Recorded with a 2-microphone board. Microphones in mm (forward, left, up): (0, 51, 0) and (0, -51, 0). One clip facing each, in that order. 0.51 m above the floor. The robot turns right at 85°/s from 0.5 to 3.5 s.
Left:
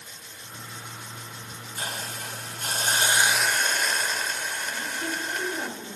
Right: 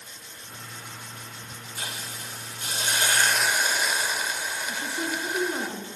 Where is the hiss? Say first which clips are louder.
Left 4 dB; 40° left, 1.5 m; by 5.7 s 170° right, 1.5 m.